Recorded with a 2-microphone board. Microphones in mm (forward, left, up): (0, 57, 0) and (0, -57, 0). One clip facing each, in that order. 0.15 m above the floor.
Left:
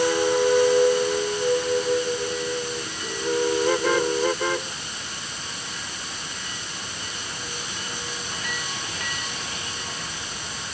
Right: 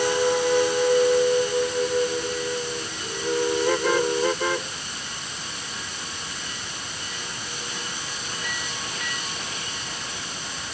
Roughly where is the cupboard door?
No cupboard door in this recording.